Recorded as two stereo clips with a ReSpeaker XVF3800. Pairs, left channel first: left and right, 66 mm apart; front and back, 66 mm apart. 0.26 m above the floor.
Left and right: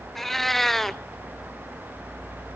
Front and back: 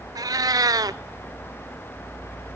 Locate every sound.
0.1 s a cat meowing: 175° left, 0.5 m